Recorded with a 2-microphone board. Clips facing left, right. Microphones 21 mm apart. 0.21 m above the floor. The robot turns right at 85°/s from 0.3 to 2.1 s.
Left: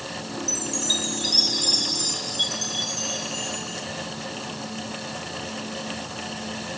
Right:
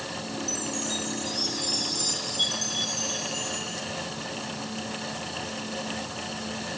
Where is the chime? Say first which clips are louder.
Left 7 dB; 25° left, 0.9 m; by 3.9 s 165° left, 0.9 m.